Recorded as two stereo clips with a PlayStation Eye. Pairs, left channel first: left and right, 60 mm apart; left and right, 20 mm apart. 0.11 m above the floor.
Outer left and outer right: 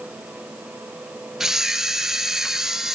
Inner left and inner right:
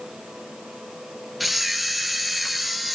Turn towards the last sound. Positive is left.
turn(degrees=-5)  # may be behind; listen again after turning